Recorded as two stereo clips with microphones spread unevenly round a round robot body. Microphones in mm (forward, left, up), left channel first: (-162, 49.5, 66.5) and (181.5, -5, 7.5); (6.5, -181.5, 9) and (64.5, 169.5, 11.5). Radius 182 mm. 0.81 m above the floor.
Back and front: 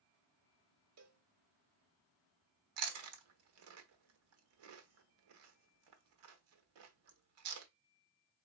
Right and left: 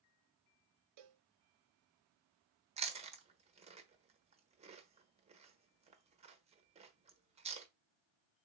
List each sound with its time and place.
1.0 s a cowbell: 40° left, 0.7 m
2.8 s chewing: 5° left, 1.1 m